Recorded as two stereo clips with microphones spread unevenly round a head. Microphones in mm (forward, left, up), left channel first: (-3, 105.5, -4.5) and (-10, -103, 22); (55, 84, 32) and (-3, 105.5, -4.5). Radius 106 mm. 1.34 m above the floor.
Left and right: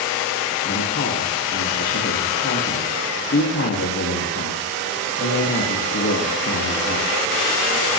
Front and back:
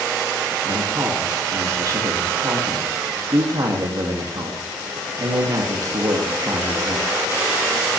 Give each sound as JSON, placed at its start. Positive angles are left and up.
{"t": 0.6, "sound": "a man speaking", "azimuth_deg": 125, "distance_m": 2.5}